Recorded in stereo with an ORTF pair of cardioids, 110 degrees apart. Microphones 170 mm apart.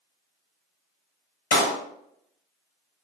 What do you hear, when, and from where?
1.5 s a clap: 60° left, 1.4 m